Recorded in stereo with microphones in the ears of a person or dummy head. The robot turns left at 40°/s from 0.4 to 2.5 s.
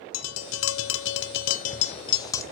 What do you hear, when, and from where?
0.1 s tapping: 95° left, 0.9 m; by 2.4 s 15° left, 0.9 m